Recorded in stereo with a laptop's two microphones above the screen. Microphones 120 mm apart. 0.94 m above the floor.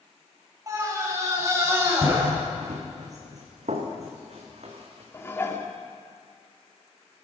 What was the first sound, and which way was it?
A scream, 30° right (ahead or behind).